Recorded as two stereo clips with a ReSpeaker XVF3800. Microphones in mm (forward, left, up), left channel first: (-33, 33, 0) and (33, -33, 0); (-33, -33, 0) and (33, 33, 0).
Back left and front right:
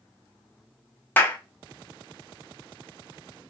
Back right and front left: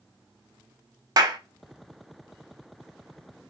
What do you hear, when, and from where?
1.2 s a clap: 70° left, 0.6 m